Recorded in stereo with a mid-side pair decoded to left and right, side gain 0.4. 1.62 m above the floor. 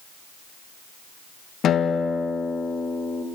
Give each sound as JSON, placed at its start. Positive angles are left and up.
{"t": 1.6, "sound": "a guitar", "azimuth_deg": 70, "distance_m": 2.0}